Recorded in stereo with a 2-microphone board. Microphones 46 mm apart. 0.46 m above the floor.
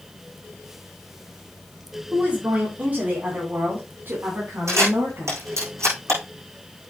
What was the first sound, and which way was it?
A woman speaking, 30° right (ahead or behind).